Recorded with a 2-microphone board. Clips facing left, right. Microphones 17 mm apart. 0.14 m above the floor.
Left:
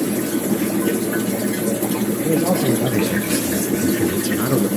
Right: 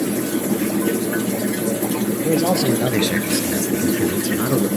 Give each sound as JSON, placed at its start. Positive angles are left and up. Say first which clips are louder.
{"t": 2.2, "sound": "a man speaking", "louder": "even", "side_deg": -70, "distance_m": 3.0}